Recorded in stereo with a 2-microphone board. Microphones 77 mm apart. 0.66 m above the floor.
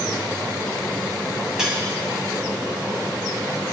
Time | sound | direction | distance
1.6 | cutlery clinking | 10° right (ahead or behind) | 2.5 m